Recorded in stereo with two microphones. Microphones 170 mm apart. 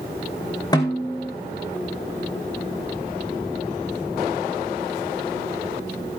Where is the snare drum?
25° left (ahead or behind), 2.5 m.